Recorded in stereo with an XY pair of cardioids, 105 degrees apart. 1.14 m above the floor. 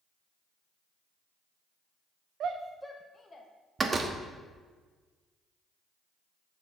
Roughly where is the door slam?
Ahead right.